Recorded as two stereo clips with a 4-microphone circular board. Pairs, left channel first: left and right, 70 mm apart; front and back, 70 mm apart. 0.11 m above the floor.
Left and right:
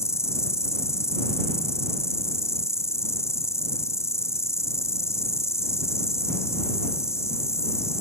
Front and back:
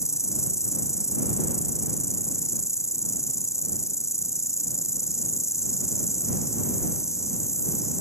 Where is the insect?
40° left.